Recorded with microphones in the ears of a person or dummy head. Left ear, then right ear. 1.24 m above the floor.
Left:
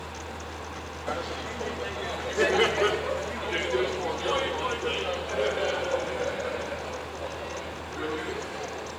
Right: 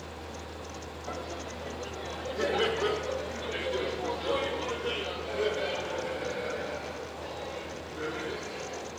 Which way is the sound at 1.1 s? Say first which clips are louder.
Left 6 dB; 55° left (ahead or behind).